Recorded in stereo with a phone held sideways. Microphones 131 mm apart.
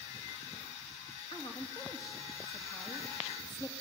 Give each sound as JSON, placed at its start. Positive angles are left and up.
{"t": 1.3, "sound": "a woman speaking", "side_deg": 30, "distance_m": 3.0}